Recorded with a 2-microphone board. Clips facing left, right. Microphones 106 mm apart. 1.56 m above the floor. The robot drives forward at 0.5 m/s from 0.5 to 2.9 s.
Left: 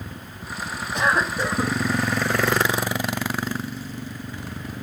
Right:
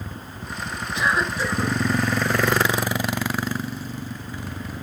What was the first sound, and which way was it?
A cough, 45° left (ahead or behind).